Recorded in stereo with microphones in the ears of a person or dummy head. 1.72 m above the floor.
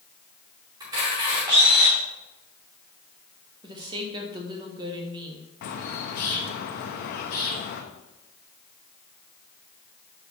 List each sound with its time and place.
0.8 s a camera shutter: 25° right (ahead or behind), 2.5 m
3.6 s a woman speaking: 25° right (ahead or behind), 1.4 m
5.6 s a bird: 50° left (ahead or behind), 0.9 m